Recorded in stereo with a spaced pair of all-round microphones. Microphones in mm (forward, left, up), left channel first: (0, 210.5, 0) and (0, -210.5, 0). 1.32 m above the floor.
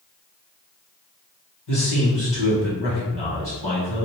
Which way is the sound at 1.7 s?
75° left (ahead or behind).